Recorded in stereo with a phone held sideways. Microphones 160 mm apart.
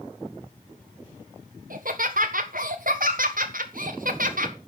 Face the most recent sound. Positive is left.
turn(degrees=-65)  # may be behind; listen again after turning